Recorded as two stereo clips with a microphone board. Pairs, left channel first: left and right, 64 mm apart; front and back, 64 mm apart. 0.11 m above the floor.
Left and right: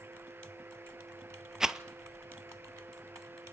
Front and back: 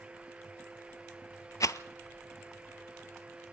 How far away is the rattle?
About 0.6 m.